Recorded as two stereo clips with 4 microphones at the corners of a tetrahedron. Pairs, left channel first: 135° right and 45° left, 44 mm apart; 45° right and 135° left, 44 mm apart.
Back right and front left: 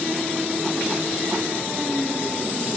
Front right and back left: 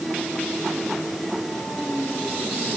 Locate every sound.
Only background noise.